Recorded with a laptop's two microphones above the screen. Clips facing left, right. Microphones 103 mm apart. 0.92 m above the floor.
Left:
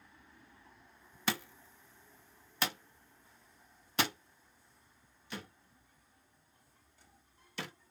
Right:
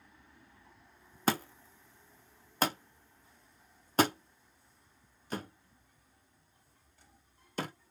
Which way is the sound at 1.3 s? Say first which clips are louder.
Right 6 dB; 40° right (ahead or behind).